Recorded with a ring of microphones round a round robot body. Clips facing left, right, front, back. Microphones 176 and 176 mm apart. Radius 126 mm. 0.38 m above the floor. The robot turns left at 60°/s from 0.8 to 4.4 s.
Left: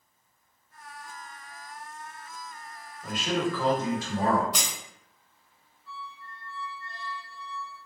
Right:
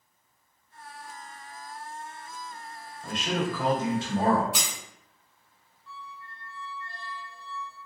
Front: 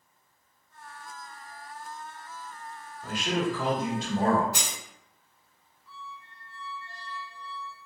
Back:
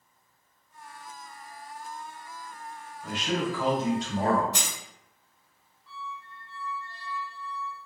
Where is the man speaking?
20° left, 1.4 m; by 4.4 s 60° right, 1.4 m.